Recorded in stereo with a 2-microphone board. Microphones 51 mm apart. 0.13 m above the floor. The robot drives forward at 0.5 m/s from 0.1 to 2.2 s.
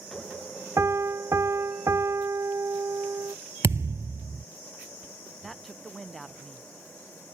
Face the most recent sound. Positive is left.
turn(degrees=10)  # may be behind; listen again after turning